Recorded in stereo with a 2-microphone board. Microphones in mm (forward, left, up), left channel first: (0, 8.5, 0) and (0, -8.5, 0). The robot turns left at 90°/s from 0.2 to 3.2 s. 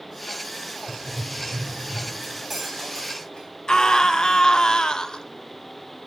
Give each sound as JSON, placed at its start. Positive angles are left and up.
{"t": 0.9, "sound": "writing", "azimuth_deg": -160, "distance_m": 0.8}
{"t": 2.2, "sound": "cutlery clinking", "azimuth_deg": -155, "distance_m": 4.0}
{"t": 3.7, "sound": "a scream", "side_deg": 55, "distance_m": 0.6}